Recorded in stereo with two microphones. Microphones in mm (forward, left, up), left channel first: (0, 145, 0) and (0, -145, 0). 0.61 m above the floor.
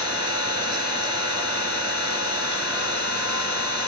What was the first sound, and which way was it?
An engine running, 55° right (ahead or behind).